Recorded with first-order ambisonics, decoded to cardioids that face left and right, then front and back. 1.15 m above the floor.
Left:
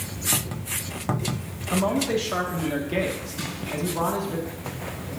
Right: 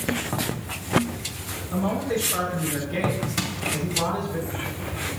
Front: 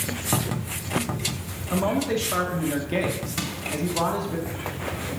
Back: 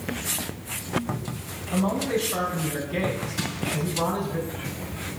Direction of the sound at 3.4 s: 65° right.